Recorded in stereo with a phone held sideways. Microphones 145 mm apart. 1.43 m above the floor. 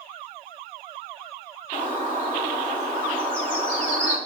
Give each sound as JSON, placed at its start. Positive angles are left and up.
{"t": 1.7, "sound": "a bird", "side_deg": 10, "distance_m": 3.5}